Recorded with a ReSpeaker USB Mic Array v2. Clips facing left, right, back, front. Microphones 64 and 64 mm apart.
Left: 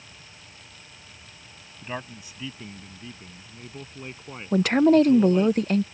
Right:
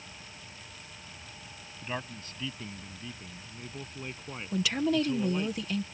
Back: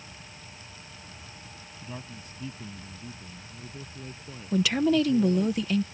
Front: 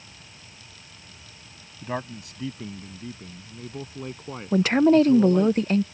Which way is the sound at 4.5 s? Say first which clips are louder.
Left 11 dB, front 6 dB; 50° left.